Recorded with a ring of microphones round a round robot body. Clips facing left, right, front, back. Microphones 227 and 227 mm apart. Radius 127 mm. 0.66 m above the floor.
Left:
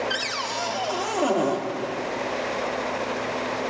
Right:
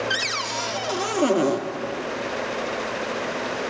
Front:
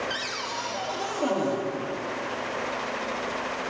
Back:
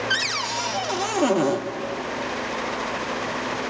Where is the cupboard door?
155° right, 0.5 m.